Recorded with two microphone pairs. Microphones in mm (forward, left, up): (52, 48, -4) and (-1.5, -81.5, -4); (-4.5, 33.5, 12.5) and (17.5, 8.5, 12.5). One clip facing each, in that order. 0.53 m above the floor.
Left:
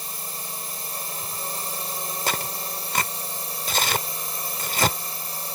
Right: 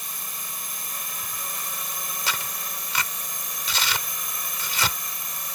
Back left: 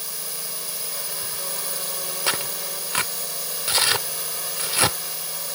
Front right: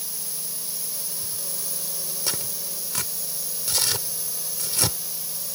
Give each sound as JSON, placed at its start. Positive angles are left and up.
{"t": 0.0, "sound": "a drone", "azimuth_deg": 120}
{"t": 2.3, "sound": "tearing paper", "azimuth_deg": 100}